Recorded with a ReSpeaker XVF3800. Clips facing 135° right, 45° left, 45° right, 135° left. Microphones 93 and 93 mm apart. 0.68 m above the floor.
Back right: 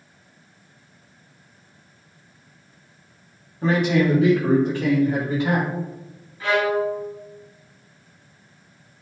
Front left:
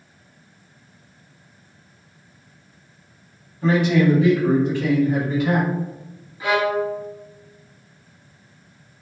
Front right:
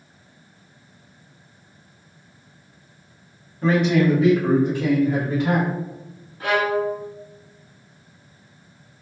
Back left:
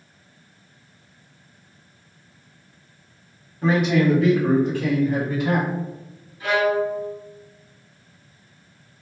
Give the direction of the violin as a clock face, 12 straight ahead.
1 o'clock.